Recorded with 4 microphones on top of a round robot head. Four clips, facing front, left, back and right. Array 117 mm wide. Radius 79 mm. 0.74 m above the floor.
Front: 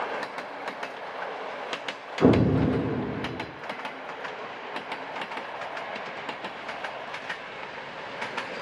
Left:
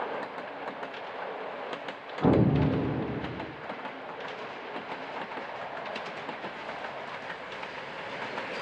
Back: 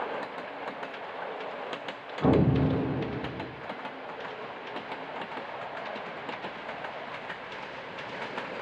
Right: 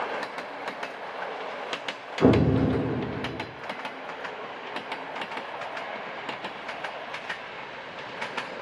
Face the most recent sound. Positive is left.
turn(degrees=-45)